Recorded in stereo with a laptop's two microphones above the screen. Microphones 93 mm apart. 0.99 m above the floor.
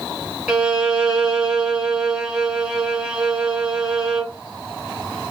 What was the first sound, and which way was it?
A violin, 10° right (ahead or behind).